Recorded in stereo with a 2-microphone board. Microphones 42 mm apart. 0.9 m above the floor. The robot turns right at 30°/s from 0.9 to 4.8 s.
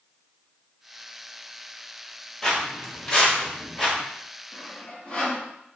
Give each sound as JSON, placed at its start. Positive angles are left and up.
{"t": 2.4, "sound": "footsteps", "side_deg": 15, "distance_m": 1.0}
{"t": 4.5, "sound": "sawing", "side_deg": 45, "distance_m": 1.0}